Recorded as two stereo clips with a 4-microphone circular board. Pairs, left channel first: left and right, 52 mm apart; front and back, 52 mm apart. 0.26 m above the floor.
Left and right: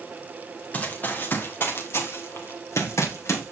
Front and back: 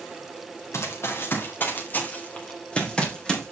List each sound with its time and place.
0.7 s running footsteps: 30° left, 2.5 m; by 3.5 s 75° left, 4 m